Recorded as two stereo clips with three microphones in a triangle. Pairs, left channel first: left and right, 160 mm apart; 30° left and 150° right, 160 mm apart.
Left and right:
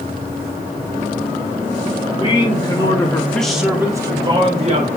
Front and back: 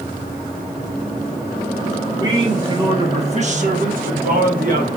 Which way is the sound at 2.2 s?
145° left.